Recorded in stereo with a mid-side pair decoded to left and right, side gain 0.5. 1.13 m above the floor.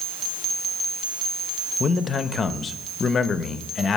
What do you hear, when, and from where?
1.8 s a man speaking: 35° left, 1.0 m